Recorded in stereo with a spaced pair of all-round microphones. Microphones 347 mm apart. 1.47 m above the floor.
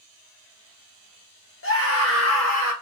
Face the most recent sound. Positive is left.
turn(degrees=50)  # may be behind; listen again after turning